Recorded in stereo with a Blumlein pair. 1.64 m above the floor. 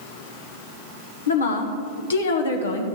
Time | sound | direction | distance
1.3 | a woman speaking | 65° left | 1.2 m